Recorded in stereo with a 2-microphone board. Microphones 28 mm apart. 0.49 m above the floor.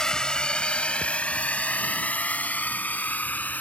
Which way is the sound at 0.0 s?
25° left (ahead or behind).